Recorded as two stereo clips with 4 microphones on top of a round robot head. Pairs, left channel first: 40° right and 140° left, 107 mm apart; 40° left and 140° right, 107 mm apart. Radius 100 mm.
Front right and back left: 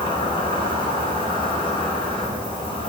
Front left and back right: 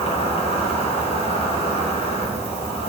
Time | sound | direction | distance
0.0 | an insect | 10° left | 6.5 m